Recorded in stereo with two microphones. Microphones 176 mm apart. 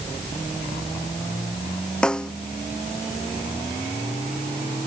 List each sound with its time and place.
2.0 s a snare drum: 5° left (ahead or behind)